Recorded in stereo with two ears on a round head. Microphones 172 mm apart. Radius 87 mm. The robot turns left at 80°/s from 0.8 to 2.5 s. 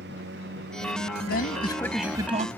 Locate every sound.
0.0 s a lawn mower: 55° right (ahead or behind); by 2.6 s 10° left (ahead or behind)
1.3 s a man speaking: 55° left; by 2.5 s 40° right